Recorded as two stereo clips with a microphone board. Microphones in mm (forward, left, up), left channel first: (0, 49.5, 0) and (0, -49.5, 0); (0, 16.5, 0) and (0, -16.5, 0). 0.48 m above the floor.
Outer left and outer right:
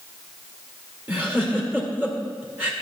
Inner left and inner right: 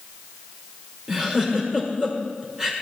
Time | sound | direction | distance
1.1 | a giggle | 20° right (ahead or behind) | 1.7 m